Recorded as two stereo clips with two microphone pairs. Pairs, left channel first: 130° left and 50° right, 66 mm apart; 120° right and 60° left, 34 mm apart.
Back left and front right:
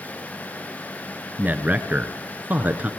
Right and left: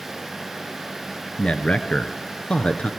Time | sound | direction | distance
1.4 | a man speaking | 95° right | 1.3 m